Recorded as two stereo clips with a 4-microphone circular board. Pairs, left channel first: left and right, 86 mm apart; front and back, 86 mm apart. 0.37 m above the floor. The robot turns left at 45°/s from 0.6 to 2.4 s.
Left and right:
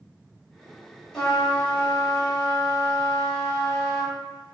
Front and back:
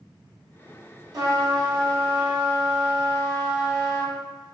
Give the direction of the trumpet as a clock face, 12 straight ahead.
6 o'clock.